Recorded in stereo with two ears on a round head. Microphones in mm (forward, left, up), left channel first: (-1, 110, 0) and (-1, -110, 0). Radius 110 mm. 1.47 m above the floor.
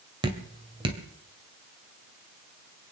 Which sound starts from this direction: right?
Dripping, at 0.2 s.